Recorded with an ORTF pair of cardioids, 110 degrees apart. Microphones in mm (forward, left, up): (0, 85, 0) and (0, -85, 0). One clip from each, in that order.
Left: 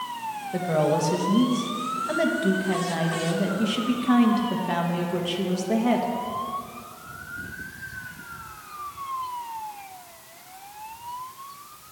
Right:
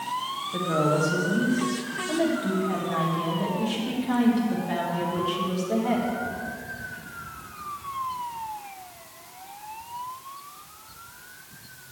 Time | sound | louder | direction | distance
0.5 | a woman speaking | left 1 dB | 35° left | 1.7 m